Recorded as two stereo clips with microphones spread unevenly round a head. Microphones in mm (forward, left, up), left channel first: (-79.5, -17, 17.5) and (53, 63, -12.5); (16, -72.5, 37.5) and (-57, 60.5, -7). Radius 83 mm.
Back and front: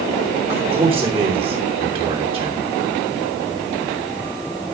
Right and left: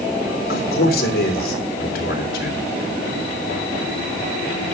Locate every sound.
0.5 s a man speaking: 25° right, 3 m